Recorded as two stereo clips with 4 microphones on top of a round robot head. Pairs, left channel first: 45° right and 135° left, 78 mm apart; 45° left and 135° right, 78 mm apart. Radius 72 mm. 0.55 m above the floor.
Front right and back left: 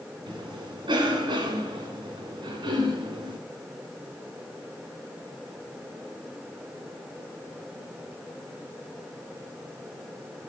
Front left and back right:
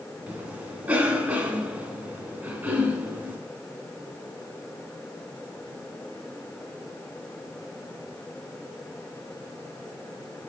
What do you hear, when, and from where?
0.3 s a cough: 155° left, 2 m